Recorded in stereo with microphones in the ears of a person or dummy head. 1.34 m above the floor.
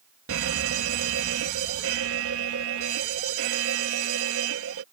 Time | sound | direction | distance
0.3 | a fire alarm | 65° right (ahead or behind) | ?